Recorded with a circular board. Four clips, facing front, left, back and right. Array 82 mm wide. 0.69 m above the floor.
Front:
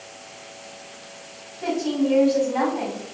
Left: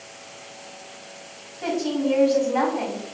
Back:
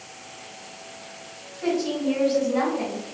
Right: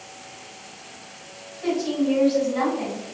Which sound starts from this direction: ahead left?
A woman speaking, at 1.6 s.